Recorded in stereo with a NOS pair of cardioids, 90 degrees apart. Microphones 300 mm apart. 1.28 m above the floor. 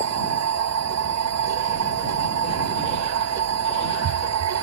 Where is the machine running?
60° right.